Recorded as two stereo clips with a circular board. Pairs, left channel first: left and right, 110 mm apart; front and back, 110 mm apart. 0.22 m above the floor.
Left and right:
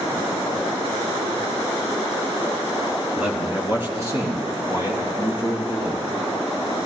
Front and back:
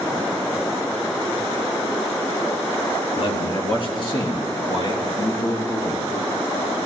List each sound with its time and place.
3.2 s a man speaking: 20° right, 2.5 m; by 6.0 s 45° right, 4 m